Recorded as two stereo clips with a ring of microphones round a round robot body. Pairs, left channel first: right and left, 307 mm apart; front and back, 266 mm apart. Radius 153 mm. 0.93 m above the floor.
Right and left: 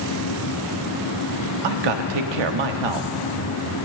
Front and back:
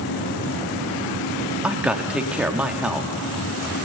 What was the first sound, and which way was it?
A man speaking, 95° left.